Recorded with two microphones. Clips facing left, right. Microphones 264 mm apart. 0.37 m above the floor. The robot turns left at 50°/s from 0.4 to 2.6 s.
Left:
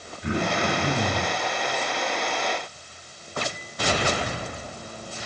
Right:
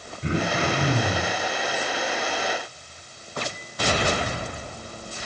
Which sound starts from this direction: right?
Throat clearing, at 0.2 s.